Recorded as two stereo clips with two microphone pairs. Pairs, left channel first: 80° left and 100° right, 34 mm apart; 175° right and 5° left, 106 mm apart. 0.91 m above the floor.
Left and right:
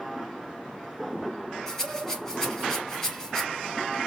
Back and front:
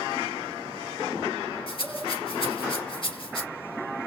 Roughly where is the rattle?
Behind left.